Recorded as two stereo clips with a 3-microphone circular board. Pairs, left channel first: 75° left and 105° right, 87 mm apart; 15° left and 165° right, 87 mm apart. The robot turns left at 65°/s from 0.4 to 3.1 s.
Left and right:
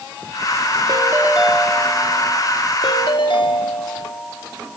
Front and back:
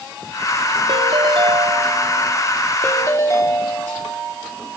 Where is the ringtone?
150° right, 2 m; by 4.8 s 65° left, 2 m.